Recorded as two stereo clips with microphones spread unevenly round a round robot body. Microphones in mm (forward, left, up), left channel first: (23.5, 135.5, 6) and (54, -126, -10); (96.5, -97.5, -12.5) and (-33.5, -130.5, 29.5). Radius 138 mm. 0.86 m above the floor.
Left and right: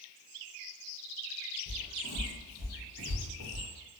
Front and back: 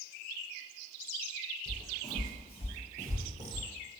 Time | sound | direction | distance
1.7 | footsteps | 75° right | 1.8 m